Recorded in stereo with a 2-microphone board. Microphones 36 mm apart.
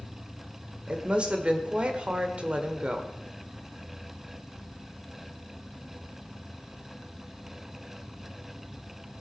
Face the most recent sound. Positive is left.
turn(degrees=-30)  # may be behind; listen again after turning